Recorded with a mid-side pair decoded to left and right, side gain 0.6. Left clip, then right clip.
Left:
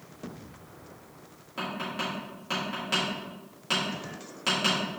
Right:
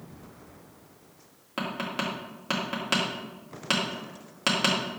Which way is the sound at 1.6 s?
40° right.